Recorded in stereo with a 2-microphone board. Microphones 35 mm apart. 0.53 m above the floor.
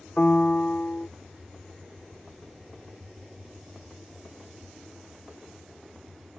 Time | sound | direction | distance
0.2 | a piano | 40° left (ahead or behind) | ?